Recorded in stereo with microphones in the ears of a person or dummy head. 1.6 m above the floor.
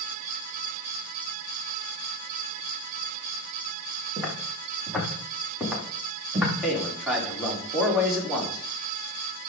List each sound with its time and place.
4.2 s footsteps: 10° left (ahead or behind), 7.5 m; by 6.5 s centre (ahead or behind), 7.5 m
6.6 s a man speaking: 10° left (ahead or behind), 4.5 m